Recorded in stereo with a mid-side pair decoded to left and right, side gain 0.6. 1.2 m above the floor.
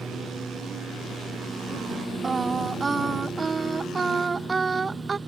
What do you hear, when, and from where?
0.0 s a lawn mower: 20° right
2.2 s singing: 25° right